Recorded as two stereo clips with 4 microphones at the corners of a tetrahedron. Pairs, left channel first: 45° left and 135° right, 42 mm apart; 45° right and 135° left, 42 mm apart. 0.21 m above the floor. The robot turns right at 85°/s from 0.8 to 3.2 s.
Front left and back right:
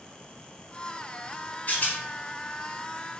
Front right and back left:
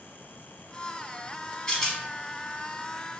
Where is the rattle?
20° left, 1.1 m; by 2.0 s 45° left, 1.1 m.